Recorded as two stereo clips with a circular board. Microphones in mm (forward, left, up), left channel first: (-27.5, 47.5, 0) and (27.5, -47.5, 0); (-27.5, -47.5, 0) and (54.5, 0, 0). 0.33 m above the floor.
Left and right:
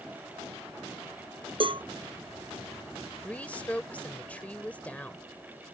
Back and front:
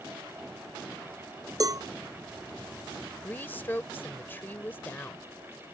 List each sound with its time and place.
1.6 s a cowbell: 20° right
3.2 s a woman speaking: 175° left